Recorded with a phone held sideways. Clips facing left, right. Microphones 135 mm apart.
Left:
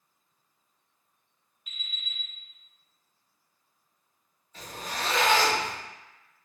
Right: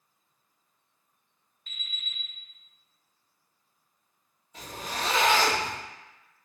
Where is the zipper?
20° right (ahead or behind), 1.8 m.